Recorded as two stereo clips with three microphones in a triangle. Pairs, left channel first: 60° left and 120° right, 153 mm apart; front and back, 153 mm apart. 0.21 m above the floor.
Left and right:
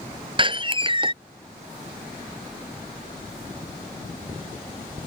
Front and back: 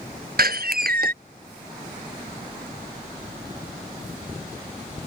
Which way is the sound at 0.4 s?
175° right.